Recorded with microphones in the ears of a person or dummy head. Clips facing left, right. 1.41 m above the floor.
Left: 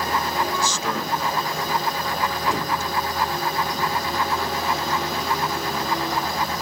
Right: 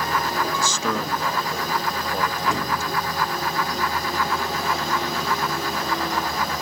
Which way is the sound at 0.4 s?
80° right.